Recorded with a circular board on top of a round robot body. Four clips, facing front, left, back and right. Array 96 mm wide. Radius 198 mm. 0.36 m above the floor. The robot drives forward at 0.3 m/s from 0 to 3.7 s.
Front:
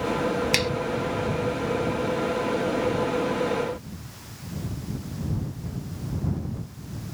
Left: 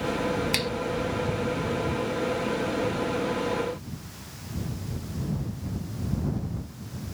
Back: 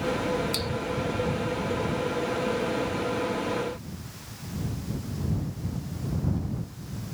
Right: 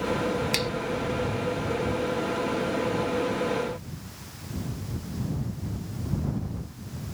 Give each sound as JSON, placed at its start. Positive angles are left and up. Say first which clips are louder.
{"t": 0.5, "sound": "a finger snap", "louder": "right 1 dB, front 6 dB", "azimuth_deg": 5}